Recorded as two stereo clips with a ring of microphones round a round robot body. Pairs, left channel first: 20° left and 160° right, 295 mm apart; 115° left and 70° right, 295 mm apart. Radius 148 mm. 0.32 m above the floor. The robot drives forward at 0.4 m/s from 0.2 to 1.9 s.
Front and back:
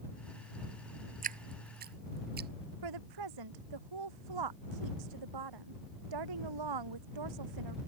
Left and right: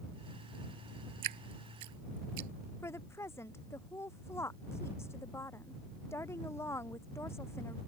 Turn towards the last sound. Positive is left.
turn(degrees=-165)